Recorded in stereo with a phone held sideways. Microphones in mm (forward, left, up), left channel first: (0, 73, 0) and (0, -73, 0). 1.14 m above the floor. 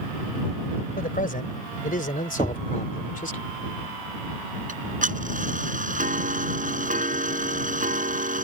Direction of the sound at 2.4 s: 30° right (ahead or behind).